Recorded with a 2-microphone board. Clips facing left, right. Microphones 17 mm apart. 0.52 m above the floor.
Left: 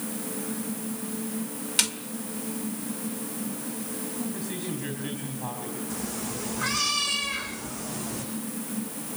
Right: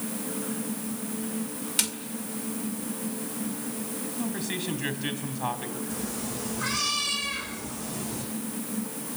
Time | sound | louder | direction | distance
1.8 | a snare drum | left 3 dB | 20° left (ahead or behind) | 1.9 m
4.2 | a man speaking | right 4 dB | 35° right (ahead or behind) | 4 m
5.9 | a cat meowing | even | 10° left (ahead or behind) | 7 m